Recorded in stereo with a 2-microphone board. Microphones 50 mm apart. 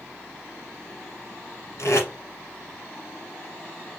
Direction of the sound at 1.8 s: 65° left (ahead or behind).